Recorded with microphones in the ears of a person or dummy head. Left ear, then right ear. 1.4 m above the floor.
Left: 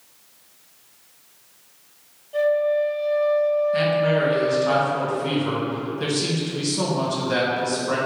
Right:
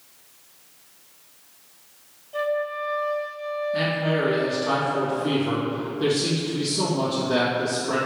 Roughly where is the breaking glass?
I don't hear breaking glass.